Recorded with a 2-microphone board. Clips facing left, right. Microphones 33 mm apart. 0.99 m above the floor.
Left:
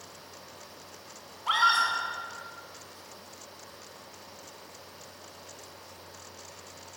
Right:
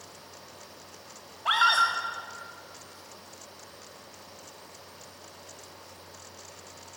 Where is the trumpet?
I don't hear a trumpet.